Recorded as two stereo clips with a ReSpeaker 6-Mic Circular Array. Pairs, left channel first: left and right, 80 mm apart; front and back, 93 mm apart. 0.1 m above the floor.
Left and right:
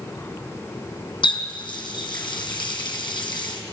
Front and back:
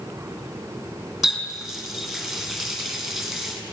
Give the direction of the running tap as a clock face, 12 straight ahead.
9 o'clock.